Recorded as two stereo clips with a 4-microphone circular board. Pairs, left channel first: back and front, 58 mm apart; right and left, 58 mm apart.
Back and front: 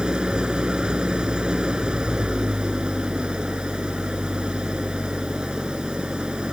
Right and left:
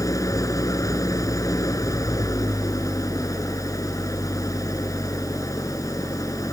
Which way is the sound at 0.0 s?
75° right.